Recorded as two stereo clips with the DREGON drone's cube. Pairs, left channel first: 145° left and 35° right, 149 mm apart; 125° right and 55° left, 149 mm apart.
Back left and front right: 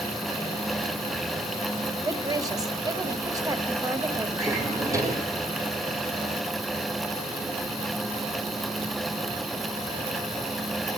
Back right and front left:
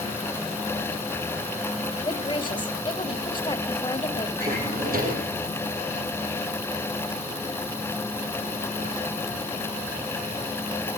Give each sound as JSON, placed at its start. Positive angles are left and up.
{"t": 2.0, "sound": "a woman speaking", "azimuth_deg": -85, "distance_m": 1.1}
{"t": 4.4, "sound": "a drawer", "azimuth_deg": 35, "distance_m": 2.0}